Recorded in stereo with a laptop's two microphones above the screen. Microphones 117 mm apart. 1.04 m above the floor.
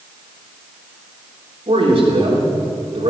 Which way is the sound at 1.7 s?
60° right (ahead or behind).